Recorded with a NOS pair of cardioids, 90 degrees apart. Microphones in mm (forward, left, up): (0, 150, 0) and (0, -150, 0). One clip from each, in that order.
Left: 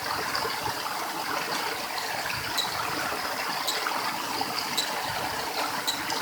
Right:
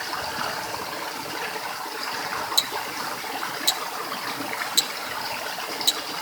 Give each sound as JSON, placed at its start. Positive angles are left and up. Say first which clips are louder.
{"t": 2.6, "sound": "ticking", "louder": "right 3 dB", "azimuth_deg": -60, "distance_m": 1.3}